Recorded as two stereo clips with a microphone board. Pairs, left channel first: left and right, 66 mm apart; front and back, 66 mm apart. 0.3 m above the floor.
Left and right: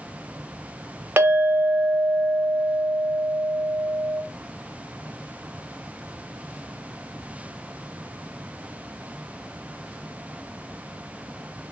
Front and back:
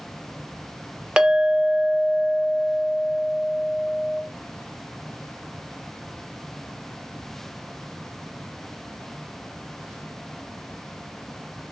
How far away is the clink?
About 0.5 m.